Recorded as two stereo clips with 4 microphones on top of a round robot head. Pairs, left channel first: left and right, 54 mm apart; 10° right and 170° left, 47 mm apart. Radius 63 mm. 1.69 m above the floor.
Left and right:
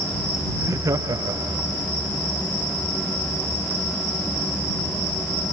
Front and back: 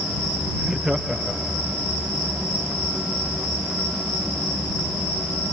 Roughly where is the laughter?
Right.